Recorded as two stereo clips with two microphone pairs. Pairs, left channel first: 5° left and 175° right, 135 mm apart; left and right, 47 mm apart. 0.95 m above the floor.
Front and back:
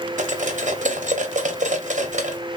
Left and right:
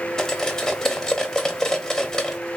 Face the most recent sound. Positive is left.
turn(degrees=165)